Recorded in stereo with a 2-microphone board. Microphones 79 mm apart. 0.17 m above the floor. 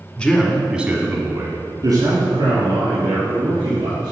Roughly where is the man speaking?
Centre.